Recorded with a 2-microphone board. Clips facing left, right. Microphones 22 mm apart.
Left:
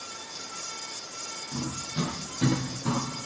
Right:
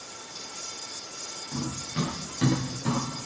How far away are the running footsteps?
About 10 m.